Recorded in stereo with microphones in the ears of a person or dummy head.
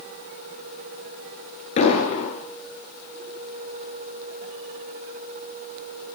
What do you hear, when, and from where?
1.8 s an explosion: 40° left (ahead or behind), 10 m